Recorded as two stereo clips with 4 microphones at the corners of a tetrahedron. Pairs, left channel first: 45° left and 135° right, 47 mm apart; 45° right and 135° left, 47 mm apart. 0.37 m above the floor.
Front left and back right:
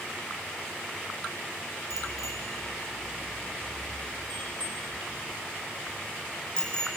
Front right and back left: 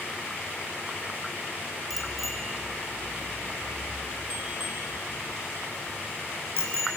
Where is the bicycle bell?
40° left, 3 m; by 6.9 s 120° left, 4.5 m.